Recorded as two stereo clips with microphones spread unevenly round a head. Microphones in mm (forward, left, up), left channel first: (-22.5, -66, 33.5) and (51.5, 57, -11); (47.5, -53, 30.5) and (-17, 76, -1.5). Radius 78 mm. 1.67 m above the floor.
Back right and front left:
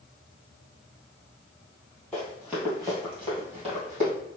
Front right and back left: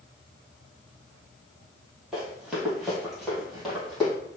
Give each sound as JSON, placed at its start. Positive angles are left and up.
{"t": 2.1, "sound": "running footsteps", "azimuth_deg": -130, "distance_m": 1.8}